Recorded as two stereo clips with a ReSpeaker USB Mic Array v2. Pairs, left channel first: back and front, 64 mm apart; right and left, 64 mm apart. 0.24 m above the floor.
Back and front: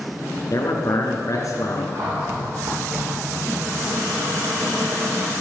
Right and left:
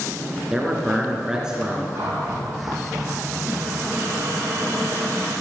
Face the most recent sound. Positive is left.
turn(degrees=40)